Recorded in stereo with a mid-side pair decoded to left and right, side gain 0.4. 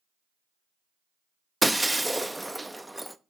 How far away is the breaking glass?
About 0.6 m.